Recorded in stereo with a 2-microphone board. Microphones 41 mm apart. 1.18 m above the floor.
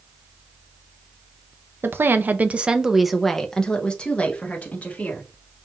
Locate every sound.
1.8 s a woman speaking: 65° right (ahead or behind), 0.6 m; by 5.3 s 40° left (ahead or behind), 1.6 m